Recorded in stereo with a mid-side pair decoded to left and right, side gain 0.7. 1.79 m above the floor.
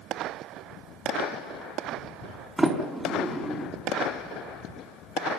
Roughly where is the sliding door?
Ahead.